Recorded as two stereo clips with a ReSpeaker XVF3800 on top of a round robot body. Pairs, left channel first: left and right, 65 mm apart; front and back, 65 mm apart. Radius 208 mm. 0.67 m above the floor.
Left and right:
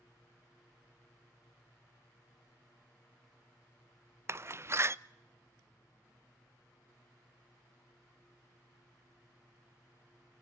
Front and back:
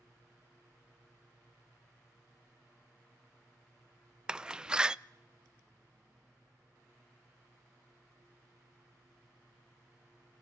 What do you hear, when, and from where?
4.3 s a door slam: 105° right, 0.7 m